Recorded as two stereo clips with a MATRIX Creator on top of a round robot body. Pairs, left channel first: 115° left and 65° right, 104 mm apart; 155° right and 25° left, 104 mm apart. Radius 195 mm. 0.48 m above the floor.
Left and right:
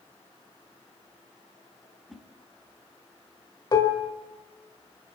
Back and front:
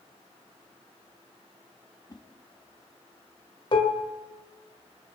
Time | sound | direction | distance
2.1 | a whoosh | 160° right | 1.4 m
3.7 | dishes clattering | 165° left | 1.6 m